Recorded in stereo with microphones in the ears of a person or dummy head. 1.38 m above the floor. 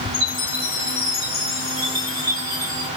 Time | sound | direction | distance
0.1 | a chime | 25° right (ahead or behind) | 1.4 m